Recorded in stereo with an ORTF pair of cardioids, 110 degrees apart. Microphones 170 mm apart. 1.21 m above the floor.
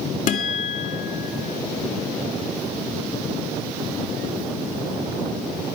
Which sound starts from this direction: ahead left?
A guitar, at 0.3 s.